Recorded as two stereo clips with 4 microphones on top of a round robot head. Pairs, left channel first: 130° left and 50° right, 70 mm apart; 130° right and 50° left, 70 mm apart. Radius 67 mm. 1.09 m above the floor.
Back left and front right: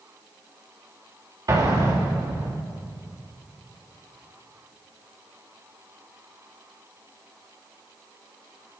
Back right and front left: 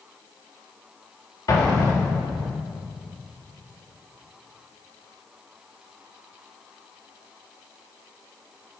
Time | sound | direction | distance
1.5 | an explosion | 95° right | 3 m